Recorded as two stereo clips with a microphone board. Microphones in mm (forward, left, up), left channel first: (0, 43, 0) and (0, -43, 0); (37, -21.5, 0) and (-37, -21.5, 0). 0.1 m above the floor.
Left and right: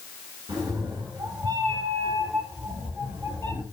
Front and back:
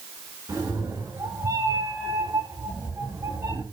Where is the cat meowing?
135° right, 9.5 m; by 3.6 s 130° right, 10.5 m.